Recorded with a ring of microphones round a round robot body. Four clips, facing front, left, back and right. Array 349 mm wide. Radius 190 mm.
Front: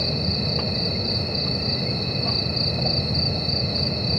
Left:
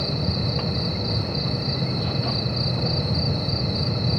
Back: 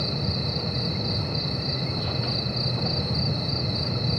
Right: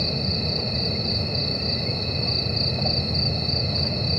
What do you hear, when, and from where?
0.0 s an insect: 45° right